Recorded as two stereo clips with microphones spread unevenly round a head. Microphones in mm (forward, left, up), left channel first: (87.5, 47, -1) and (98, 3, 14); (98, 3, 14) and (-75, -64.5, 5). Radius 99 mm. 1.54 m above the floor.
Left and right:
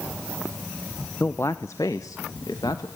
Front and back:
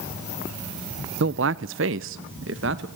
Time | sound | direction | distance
1.2 | a man speaking | straight behind | 0.5 m